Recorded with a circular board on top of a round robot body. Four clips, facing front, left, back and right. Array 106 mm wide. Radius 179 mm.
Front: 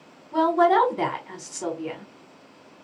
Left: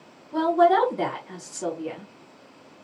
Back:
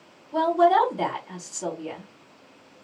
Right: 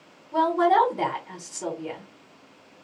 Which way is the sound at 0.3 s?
15° right.